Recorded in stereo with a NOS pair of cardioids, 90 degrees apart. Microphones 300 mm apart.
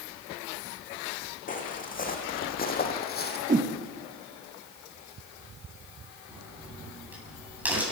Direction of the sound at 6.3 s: 5° right.